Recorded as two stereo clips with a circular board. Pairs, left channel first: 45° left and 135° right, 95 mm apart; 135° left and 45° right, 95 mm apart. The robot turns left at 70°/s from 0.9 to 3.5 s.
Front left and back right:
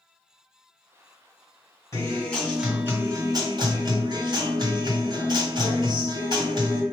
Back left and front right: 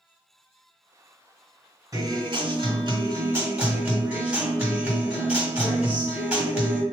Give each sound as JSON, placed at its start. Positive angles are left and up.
{"t": 1.9, "sound": "a guitar", "azimuth_deg": 0, "distance_m": 2.0}